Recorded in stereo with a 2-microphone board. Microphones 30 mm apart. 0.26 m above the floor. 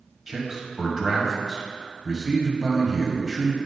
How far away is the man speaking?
About 1.5 m.